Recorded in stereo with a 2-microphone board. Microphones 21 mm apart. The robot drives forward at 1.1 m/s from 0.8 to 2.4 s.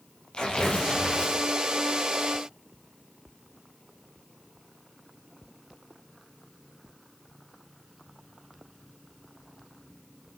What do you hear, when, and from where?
0.3 s tearing paper: 40° left (ahead or behind), 8 m; by 1.4 s 45° left (ahead or behind), 7.5 m